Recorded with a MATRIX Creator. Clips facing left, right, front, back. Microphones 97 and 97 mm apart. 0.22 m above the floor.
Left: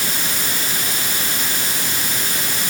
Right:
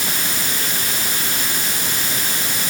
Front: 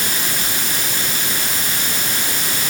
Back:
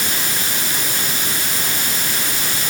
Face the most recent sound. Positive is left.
No sound to turn to.